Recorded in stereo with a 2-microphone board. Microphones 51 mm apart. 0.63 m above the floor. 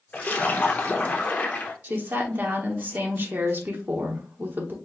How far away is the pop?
No pop in this recording.